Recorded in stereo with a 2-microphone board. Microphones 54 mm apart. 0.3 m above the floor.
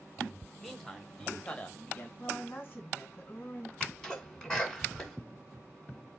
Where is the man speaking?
Centre (ahead or behind), 1.4 m; by 2.1 s 35° left (ahead or behind), 1.3 m.